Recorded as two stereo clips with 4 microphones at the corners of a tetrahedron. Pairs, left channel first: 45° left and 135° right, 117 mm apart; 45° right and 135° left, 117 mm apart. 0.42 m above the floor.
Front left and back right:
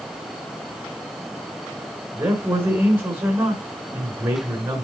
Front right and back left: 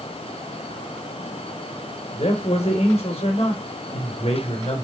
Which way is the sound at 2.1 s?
65° right.